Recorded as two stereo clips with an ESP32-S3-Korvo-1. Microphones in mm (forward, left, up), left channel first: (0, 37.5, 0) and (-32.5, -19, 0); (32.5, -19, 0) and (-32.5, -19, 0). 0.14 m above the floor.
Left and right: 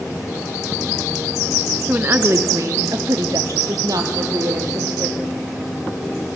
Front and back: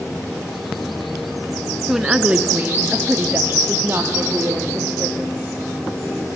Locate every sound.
1.9 s a woman speaking: 105° right, 1.1 m; by 5.2 s 130° right, 4.5 m